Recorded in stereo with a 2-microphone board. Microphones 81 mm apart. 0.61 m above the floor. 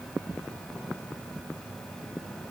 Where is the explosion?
No explosion in this recording.